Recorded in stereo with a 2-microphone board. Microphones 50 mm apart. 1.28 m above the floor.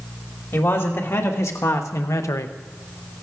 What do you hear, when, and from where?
0.5 s a man speaking: 60° left (ahead or behind), 2 m; by 2.5 s 70° left (ahead or behind), 0.7 m